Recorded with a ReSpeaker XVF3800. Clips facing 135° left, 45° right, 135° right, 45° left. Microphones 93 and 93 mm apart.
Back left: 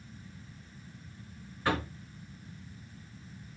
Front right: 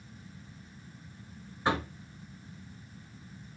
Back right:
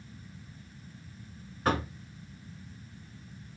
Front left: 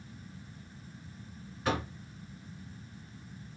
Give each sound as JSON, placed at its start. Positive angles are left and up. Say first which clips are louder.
{"t": 1.6, "sound": "knocking", "louder": "front right 1 dB, back right 3 dB", "azimuth_deg": -110, "distance_m": 1.3}